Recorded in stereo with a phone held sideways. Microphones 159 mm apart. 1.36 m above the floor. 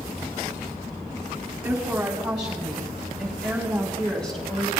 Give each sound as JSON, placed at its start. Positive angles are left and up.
{"t": 1.6, "sound": "a woman speaking", "side_deg": -10, "distance_m": 5.5}